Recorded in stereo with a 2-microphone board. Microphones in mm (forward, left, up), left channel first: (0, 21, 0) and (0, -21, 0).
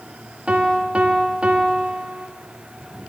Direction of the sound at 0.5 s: 30° right (ahead or behind).